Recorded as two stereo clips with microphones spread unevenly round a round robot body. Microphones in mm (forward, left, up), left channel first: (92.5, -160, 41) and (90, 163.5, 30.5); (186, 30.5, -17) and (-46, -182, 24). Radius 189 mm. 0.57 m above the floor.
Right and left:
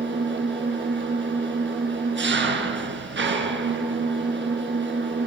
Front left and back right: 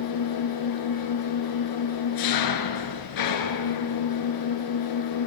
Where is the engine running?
35° left, 4.5 m.